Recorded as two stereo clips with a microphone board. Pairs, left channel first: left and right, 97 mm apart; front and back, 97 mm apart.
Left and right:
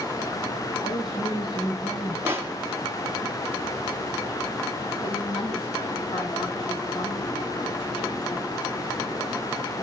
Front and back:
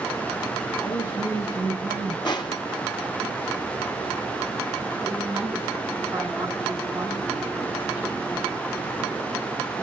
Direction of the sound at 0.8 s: 60° left.